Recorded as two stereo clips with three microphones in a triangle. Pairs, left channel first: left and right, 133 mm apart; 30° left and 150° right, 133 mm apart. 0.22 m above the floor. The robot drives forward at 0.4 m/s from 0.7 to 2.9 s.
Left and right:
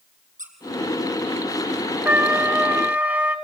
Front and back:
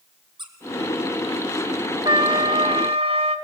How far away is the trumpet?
About 0.9 m.